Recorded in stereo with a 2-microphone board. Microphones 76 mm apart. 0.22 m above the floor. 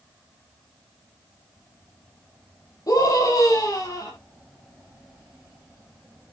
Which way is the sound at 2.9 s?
50° left (ahead or behind).